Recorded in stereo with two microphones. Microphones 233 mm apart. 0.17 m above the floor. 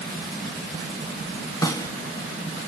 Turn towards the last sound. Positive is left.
turn(degrees=15)  # may be behind; listen again after turning